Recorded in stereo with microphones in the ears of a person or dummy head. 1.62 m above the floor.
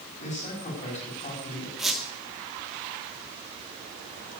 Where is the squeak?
Centre (ahead or behind), 1.3 m.